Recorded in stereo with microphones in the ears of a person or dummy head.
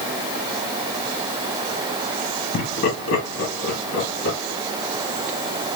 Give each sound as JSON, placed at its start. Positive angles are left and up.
{"t": 2.5, "sound": "laughter", "side_deg": 60, "distance_m": 1.2}